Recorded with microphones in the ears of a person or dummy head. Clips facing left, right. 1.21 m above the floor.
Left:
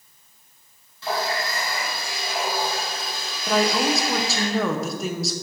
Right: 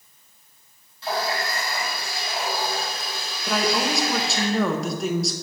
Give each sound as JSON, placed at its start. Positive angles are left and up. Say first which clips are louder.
{"t": 1.0, "sound": "a running tap", "louder": "even", "side_deg": 70, "distance_m": 2.0}
{"t": 3.5, "sound": "a woman speaking", "louder": "left 3 dB", "side_deg": 0, "distance_m": 0.7}